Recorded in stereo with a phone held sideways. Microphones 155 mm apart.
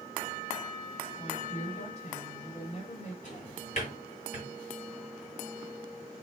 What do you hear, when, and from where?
1.2 s a woman speaking: 45° left (ahead or behind), 3.5 m
3.2 s a drawer: 50° left (ahead or behind), 2 m